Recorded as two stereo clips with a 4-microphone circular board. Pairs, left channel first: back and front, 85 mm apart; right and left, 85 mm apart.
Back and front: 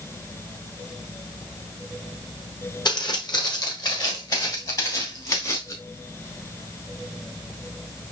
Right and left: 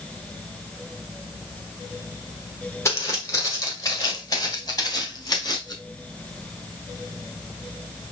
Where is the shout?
No shout in this recording.